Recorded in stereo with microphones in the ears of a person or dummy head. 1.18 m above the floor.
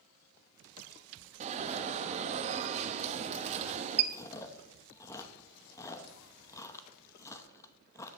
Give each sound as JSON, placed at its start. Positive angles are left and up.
{"t": 1.4, "sound": "an alarm", "side_deg": -35, "distance_m": 0.8}
{"t": 4.1, "sound": "chewing", "side_deg": 15, "distance_m": 0.8}